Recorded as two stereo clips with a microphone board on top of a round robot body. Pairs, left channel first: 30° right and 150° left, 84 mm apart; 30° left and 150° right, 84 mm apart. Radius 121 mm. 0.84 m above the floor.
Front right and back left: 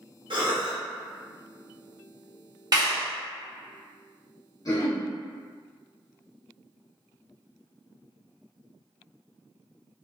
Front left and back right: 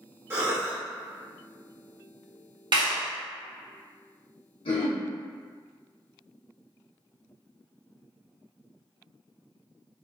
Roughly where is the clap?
Behind.